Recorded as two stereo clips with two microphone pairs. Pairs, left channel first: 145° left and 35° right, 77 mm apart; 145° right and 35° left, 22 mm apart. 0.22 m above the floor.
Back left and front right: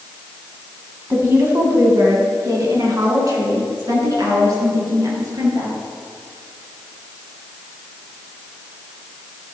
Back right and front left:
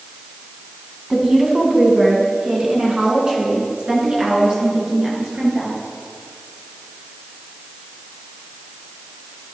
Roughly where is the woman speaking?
Ahead.